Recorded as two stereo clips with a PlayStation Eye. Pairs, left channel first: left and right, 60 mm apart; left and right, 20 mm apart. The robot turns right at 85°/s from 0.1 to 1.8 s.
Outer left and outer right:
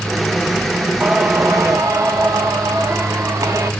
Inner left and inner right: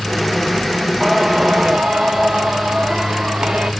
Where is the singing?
165° right, 1.2 m; by 3.7 s 95° right, 1.2 m.